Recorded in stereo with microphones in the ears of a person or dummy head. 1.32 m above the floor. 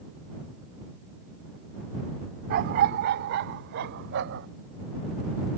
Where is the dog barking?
50° right (ahead or behind); by 4.5 s 70° right (ahead or behind).